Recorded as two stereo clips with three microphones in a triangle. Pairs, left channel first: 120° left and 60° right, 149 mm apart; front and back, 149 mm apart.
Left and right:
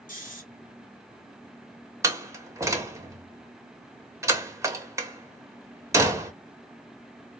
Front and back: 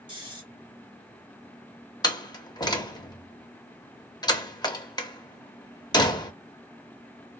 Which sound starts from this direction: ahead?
A door slam, at 2.0 s.